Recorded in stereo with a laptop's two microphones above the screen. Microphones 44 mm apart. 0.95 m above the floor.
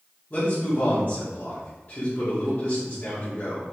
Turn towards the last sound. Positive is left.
turn(degrees=35)  # may be behind; listen again after turning